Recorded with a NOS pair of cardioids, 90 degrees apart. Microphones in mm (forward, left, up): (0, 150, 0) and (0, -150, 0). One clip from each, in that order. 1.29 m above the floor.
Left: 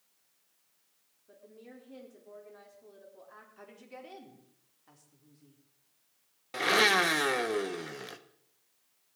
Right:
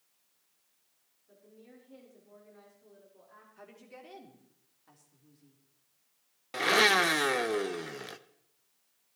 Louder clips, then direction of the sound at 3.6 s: Left 1 dB; straight ahead.